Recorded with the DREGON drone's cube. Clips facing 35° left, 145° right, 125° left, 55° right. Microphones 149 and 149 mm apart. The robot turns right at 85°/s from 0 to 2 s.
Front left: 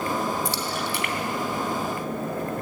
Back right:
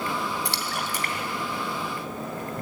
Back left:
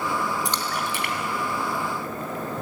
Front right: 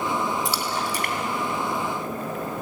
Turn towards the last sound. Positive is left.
turn(degrees=-15)